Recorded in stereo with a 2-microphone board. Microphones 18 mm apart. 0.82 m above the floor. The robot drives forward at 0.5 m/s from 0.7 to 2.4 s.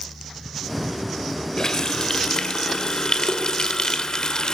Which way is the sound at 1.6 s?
30° left (ahead or behind).